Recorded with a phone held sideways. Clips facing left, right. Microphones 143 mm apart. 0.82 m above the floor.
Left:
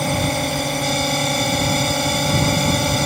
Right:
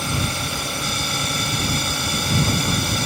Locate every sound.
0.0 s a drone: 55° left (ahead or behind)